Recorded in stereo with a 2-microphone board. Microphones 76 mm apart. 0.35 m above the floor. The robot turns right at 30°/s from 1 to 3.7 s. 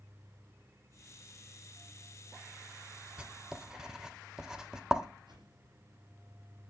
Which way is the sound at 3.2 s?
15° right (ahead or behind).